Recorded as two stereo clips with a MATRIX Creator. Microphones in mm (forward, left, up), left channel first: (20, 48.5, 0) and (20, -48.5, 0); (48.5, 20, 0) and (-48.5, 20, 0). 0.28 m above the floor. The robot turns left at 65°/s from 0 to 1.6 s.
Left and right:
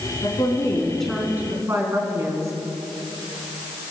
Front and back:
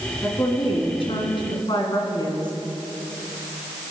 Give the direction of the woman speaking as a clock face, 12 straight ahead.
10 o'clock.